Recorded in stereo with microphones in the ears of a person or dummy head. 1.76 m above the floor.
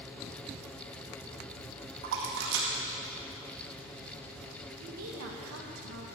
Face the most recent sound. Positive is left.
turn(degrees=-85)